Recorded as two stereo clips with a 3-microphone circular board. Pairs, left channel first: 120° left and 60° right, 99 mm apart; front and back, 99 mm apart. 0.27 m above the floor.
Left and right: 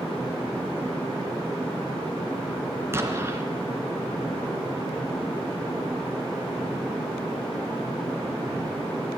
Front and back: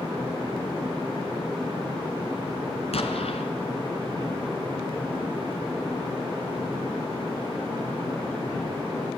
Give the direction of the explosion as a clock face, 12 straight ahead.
12 o'clock.